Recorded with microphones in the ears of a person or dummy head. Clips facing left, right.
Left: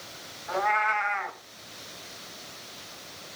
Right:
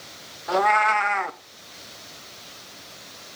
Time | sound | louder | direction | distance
0.5 | a cat meowing | right 7 dB | 50° right (ahead or behind) | 1.0 m